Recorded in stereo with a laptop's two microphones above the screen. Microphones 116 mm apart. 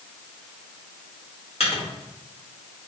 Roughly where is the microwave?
Left.